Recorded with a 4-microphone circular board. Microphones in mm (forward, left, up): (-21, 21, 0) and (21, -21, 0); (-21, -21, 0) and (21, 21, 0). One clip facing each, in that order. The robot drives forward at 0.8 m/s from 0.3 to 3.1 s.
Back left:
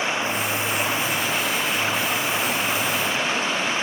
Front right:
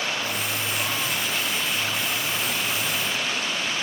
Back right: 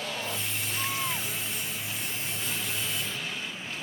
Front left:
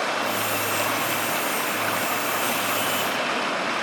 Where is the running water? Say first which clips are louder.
Back left 4 dB, front left 10 dB; 65° left; by 3.8 s 70° left.